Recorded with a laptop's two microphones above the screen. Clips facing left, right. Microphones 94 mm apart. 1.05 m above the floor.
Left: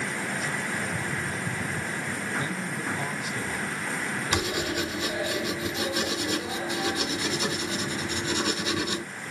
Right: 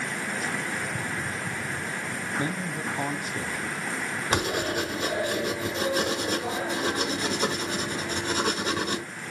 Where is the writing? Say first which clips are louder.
Right 3 dB; 40° right (ahead or behind), 1.3 m.